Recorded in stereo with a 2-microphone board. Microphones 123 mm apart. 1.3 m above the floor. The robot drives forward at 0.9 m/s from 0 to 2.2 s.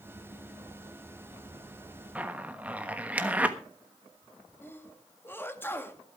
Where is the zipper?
10° right (ahead or behind), 1.2 m.